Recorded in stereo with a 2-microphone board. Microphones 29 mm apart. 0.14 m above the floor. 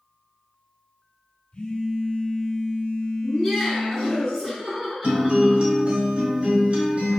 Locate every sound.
1.5 s a phone buzzing: 40° left (ahead or behind), 0.6 m
3.2 s laughter: 5° right (ahead or behind), 2.0 m
5.0 s a guitar: 40° right (ahead or behind), 1.2 m